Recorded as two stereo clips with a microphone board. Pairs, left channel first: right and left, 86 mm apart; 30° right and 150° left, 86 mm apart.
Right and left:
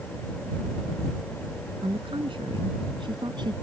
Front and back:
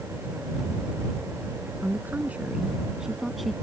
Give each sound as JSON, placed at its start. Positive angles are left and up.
{"t": 1.8, "sound": "a woman speaking", "azimuth_deg": 85}